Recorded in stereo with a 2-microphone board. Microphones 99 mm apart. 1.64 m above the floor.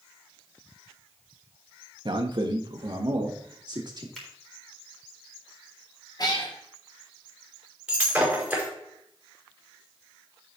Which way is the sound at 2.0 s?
50° right (ahead or behind).